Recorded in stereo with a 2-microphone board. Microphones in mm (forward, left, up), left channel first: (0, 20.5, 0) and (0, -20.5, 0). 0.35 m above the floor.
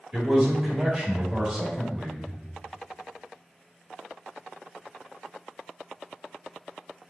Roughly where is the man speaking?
Centre.